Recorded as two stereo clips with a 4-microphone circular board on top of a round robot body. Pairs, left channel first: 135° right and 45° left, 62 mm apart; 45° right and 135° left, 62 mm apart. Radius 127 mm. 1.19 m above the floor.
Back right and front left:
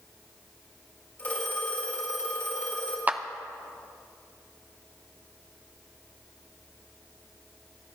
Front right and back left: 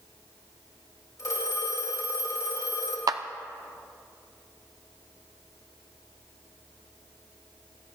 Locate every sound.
1.2 s a phone ringing: 75° right, 3.5 m
3.1 s a clap: 110° left, 0.5 m